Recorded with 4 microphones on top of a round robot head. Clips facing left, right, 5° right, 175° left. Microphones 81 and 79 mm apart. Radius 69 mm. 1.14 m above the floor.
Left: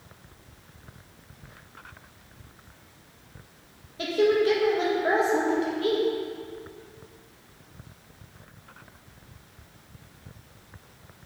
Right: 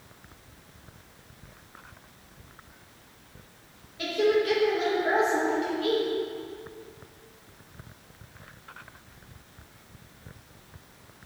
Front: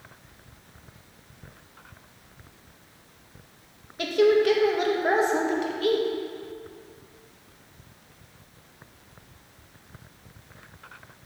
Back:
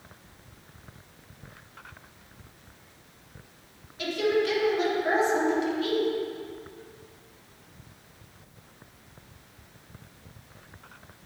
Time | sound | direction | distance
4.0 | a woman speaking | 30° left | 1.2 m